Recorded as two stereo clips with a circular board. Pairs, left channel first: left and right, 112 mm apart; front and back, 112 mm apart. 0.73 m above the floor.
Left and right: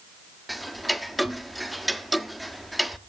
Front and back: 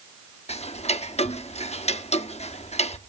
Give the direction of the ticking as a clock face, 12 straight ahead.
12 o'clock.